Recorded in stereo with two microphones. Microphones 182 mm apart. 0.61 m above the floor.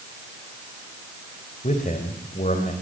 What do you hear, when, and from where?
1.6 s a man speaking: 45° left (ahead or behind), 3.5 m